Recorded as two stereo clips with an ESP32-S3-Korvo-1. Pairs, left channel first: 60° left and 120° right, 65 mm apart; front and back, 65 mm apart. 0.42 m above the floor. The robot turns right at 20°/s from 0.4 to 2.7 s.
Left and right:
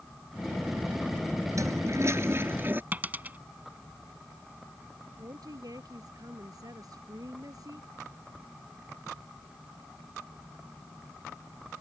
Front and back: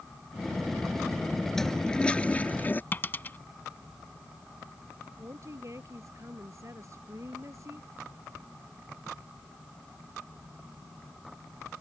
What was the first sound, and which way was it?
A toilet flushing, 85° right.